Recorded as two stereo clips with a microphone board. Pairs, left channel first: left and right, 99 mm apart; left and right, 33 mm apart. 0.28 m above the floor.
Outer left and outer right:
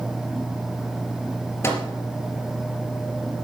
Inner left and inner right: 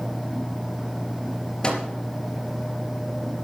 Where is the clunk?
I don't hear a clunk.